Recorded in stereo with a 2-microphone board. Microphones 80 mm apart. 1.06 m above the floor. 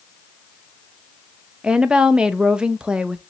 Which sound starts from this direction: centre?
A woman speaking, at 1.6 s.